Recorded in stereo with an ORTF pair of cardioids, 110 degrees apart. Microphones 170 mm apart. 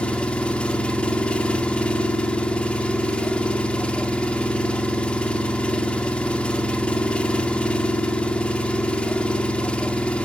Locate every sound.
0.0 s an engine running: 5° left, 2.5 m